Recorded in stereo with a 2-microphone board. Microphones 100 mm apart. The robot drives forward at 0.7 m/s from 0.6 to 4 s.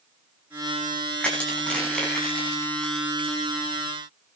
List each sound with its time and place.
1.2 s crushing: 10° left (ahead or behind), 9 m